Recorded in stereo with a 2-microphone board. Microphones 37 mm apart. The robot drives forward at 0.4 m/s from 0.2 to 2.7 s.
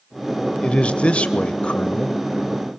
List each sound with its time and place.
0.6 s a man speaking: 30° left (ahead or behind), 1.0 m